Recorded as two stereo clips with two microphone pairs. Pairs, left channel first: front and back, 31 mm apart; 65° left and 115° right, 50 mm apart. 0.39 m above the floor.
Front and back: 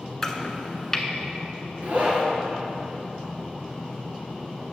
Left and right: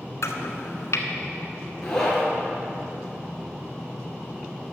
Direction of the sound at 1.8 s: 145° left.